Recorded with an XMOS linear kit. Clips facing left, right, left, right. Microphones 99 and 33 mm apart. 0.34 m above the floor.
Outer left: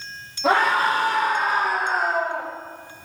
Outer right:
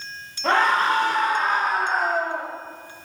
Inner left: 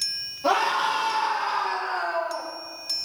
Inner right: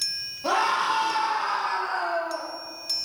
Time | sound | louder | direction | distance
0.4 | a scream | even, inner left 1 dB | 10° left (ahead or behind) | 8.5 m